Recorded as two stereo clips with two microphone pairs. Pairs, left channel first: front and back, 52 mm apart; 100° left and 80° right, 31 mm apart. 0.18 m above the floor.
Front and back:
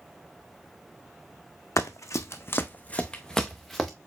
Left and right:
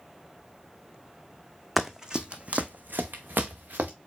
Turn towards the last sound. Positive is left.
turn(degrees=-90)